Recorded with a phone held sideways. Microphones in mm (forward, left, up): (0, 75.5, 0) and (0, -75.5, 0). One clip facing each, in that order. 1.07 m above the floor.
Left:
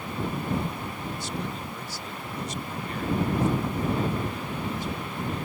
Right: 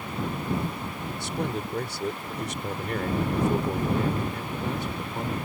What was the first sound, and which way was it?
A man speaking, 65° right (ahead or behind).